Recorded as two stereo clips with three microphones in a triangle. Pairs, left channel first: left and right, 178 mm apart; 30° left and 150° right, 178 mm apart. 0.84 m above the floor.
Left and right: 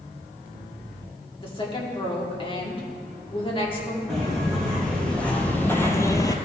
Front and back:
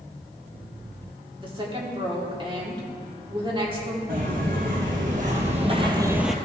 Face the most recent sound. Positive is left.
turn(degrees=115)